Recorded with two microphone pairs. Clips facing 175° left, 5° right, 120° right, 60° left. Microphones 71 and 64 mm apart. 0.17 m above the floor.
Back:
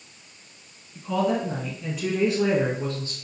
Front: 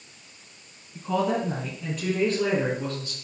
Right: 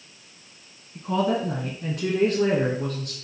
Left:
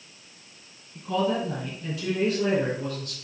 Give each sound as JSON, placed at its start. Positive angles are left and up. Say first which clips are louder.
{"t": 0.9, "sound": "a woman speaking", "louder": "back 1 dB, right 2 dB", "azimuth_deg": -65, "distance_m": 1.5}